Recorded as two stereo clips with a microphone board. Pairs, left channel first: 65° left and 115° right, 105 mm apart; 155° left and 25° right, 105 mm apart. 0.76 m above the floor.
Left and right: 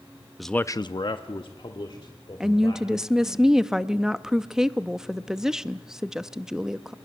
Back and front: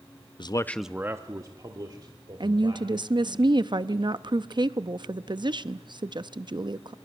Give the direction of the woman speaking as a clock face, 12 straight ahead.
1 o'clock.